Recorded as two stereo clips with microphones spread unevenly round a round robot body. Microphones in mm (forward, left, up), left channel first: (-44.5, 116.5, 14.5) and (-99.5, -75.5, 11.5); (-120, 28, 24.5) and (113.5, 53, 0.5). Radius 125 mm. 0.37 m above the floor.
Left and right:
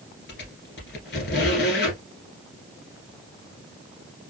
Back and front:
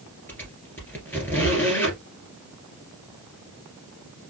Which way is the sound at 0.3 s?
105° left.